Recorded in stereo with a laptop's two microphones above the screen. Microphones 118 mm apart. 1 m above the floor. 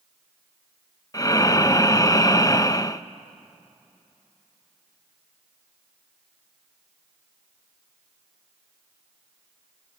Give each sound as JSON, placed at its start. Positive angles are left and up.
{"t": 1.1, "sound": "breathing", "side_deg": 30, "distance_m": 0.6}